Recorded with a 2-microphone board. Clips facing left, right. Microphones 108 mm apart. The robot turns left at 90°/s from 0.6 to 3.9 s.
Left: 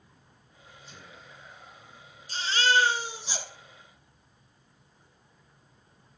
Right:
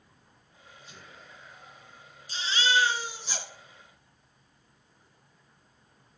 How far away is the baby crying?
About 0.6 m.